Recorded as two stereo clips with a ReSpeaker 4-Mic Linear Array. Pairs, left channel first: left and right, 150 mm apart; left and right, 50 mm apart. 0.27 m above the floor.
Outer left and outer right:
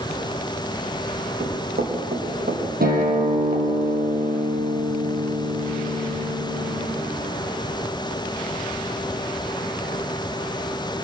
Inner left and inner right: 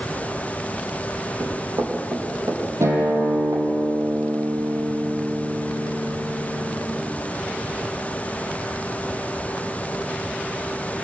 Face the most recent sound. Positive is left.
turn(degrees=-80)